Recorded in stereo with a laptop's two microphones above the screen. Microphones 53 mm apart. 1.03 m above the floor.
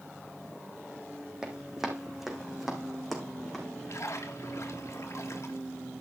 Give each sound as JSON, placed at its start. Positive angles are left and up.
{"t": 1.4, "sound": "running footsteps", "side_deg": -15, "distance_m": 3.0}
{"t": 3.9, "sound": "a splash", "side_deg": 65, "distance_m": 1.6}